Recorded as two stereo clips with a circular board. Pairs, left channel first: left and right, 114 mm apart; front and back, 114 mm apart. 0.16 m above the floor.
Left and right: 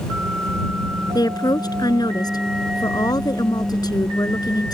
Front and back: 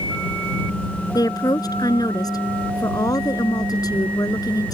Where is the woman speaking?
45° left.